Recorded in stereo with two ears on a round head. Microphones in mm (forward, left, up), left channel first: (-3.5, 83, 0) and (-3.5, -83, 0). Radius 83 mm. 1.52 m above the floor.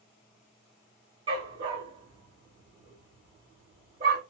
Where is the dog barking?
30° right (ahead or behind), 1.6 m.